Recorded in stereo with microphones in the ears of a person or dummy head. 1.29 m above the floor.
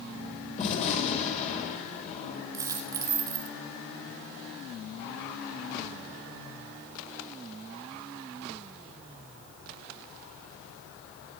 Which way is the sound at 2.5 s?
15° right (ahead or behind).